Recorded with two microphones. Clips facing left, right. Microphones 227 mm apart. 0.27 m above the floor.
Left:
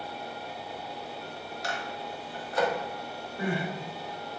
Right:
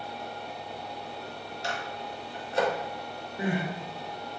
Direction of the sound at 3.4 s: 20° right (ahead or behind).